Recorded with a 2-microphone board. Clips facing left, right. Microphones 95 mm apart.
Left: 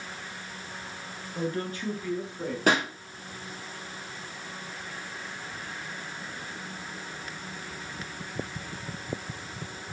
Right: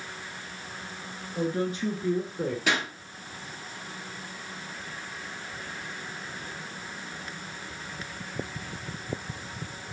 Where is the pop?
45° left (ahead or behind), 1.9 m.